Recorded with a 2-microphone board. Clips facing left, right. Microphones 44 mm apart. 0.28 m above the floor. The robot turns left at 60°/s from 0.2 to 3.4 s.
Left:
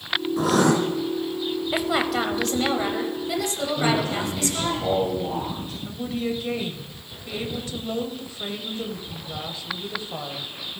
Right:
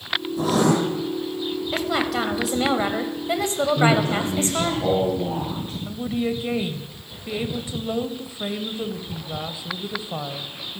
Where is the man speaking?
35° right (ahead or behind), 4 m.